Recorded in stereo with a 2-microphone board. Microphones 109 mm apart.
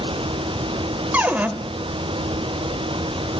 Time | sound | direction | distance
1.1 | a cupboard door | 15° right (ahead or behind) | 0.6 m